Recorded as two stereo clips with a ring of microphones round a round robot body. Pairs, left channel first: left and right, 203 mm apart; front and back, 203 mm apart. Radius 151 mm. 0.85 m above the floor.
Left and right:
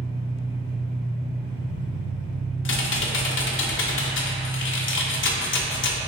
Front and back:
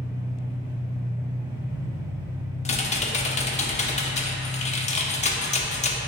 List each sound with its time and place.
0.0 s an engine running: 125° right, 1.1 m
2.6 s typing on a keyboard: 60° left, 0.6 m